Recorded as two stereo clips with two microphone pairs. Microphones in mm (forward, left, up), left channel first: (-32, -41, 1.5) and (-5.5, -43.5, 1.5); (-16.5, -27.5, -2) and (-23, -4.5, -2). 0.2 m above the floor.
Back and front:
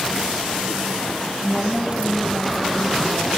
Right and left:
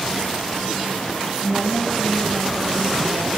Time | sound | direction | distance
1.4 | a woman speaking | 25° left | 1.8 m